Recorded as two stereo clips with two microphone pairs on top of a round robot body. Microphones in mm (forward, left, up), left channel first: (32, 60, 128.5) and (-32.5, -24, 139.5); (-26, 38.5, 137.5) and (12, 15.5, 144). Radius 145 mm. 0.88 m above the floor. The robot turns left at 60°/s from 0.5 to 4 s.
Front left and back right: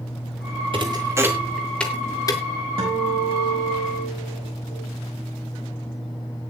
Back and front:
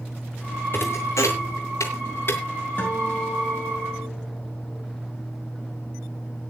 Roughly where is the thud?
Behind right.